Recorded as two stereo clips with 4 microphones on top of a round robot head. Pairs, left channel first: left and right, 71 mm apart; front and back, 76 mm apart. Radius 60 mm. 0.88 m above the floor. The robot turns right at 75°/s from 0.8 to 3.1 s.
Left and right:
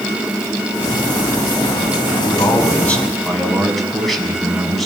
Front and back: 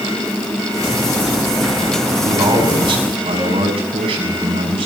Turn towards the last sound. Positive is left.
turn(degrees=180)